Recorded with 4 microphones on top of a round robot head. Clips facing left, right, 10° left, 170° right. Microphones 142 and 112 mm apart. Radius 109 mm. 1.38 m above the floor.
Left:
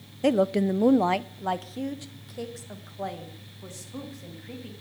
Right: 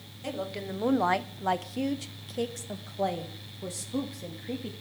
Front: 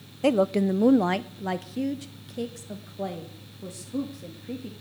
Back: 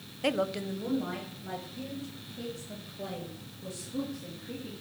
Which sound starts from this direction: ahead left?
A woman speaking, at 0.2 s.